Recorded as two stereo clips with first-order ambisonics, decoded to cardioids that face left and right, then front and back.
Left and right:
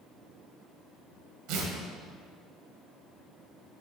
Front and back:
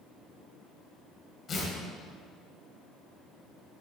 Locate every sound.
1.5 s tearing paper: 65° right, 2.0 m